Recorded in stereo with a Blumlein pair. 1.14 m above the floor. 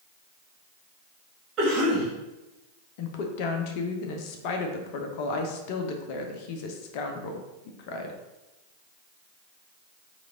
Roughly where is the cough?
Ahead right.